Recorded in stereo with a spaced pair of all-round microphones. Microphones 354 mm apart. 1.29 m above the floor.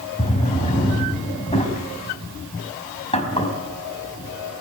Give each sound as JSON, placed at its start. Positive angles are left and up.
{"t": 0.2, "sound": "a drawer", "side_deg": 15, "distance_m": 4.0}